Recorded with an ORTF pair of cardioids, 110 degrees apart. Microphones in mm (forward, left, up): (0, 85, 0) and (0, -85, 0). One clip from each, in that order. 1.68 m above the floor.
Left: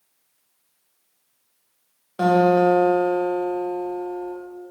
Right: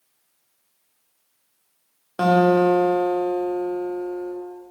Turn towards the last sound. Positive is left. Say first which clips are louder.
# even
turn(degrees=-25)